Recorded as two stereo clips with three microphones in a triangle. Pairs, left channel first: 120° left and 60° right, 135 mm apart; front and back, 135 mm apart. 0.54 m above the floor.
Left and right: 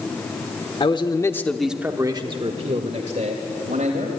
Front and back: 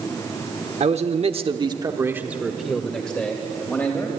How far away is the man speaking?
About 1.2 m.